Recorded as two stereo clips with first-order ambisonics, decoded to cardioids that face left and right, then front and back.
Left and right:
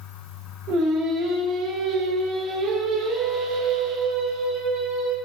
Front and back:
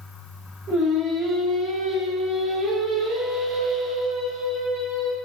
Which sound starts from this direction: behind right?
Singing, at 0.7 s.